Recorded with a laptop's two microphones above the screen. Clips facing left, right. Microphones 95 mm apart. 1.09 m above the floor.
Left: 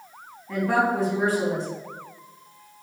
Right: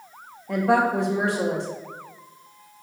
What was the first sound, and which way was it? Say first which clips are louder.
A woman speaking: right 2 dB; 65° right (ahead or behind).